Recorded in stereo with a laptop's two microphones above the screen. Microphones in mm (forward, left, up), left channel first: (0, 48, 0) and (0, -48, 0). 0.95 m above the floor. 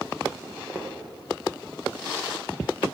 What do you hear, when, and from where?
0.4 s footsteps: 15° right (ahead or behind), 3 m